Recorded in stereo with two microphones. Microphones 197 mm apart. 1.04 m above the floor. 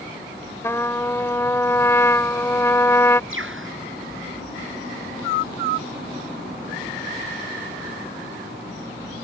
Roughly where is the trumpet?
Centre.